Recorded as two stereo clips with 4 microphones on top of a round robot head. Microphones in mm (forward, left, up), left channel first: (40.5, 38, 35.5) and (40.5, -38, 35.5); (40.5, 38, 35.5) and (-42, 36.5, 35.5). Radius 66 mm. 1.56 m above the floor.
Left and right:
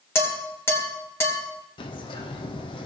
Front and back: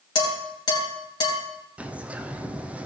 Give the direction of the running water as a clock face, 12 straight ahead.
I don't hear running water.